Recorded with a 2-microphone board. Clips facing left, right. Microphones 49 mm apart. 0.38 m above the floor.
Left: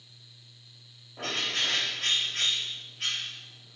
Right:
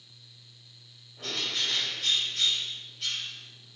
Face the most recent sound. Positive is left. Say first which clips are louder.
# left 2 dB
turn(degrees=50)  # may be behind; listen again after turning